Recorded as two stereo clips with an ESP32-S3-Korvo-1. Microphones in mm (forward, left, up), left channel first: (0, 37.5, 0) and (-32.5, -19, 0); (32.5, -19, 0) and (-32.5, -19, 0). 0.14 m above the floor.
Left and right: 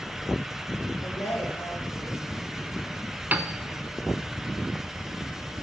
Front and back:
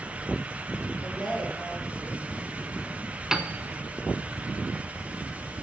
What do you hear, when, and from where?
1.0 s a woman speaking: 75° left, 8 m
3.3 s a piano: 105° right, 0.8 m